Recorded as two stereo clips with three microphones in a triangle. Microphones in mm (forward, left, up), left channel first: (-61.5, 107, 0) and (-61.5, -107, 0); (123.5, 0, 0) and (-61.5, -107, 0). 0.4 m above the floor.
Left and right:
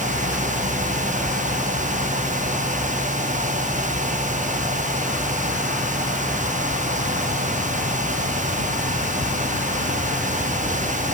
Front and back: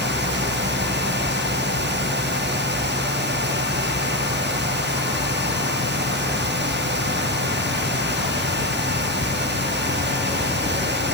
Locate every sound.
Only background noise.